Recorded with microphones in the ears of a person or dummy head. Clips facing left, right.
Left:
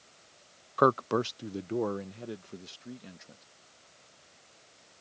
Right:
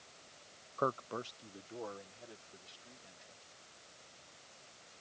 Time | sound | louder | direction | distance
0.8 | a man speaking | left 12 dB | 85° left | ?